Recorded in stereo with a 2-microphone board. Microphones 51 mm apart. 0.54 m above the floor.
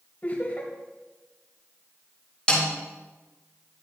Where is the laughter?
35° left (ahead or behind), 2 m.